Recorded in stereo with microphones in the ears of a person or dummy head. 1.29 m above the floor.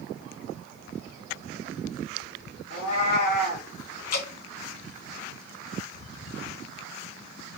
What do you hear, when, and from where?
2.7 s a cat meowing: 55° left (ahead or behind), 1.3 m
4.1 s dripping: 50° left (ahead or behind), 0.6 m